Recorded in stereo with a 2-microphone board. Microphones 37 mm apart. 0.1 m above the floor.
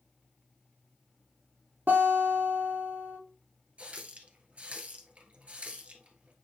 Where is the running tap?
40° right (ahead or behind), 1.4 m.